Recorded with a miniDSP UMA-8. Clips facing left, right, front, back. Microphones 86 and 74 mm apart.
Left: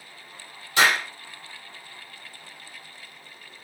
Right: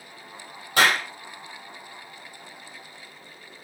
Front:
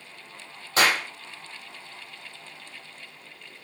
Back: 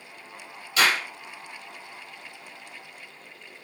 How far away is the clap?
About 4 m.